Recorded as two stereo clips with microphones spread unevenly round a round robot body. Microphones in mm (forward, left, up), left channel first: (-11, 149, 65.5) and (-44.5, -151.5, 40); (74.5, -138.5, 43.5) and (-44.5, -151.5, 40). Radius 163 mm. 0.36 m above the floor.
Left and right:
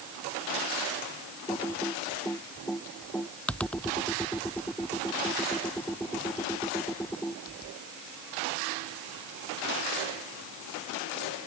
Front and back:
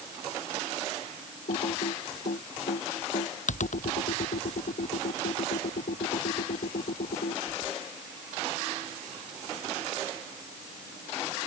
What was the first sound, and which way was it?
Typing on a keyboard, 5° right.